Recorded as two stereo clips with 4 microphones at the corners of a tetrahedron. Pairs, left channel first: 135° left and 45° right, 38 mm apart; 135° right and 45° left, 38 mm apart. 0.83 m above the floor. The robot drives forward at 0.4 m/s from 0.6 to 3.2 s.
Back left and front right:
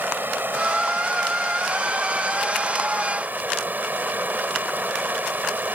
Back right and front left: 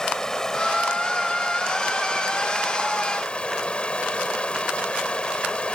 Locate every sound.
0.0 s running water: 60° right; by 5.8 s 75° right